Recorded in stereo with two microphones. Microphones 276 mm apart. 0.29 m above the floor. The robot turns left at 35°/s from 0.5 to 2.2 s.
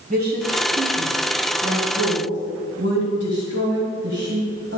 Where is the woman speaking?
30° right (ahead or behind), 1.8 m; by 4.8 s 55° right (ahead or behind), 1.8 m.